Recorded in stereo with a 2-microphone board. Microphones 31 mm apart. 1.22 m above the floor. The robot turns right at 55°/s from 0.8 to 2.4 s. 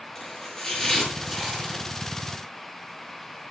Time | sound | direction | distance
0.1 | chopping | 15° left (ahead or behind) | 6.5 m